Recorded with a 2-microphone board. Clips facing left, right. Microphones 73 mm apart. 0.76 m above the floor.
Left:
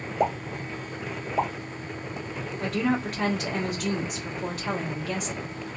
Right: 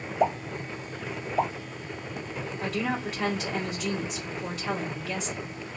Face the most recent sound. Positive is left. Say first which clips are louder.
# left 4 dB
turn(degrees=60)  # may be behind; listen again after turning